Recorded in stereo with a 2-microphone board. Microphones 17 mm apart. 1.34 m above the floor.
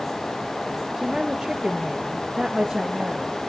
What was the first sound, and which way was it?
A woman speaking, 35° right (ahead or behind).